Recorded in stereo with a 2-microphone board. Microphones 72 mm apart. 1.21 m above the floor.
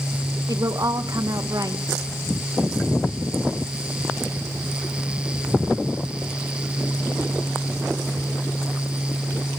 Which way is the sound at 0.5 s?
55° right (ahead or behind).